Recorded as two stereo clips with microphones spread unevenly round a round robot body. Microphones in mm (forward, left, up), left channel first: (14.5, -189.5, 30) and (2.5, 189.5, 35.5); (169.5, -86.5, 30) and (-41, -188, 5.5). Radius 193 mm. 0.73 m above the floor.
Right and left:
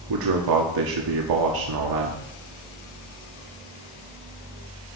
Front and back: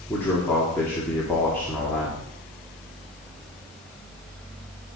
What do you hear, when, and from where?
0.1 s a man speaking: 110° left, 1.6 m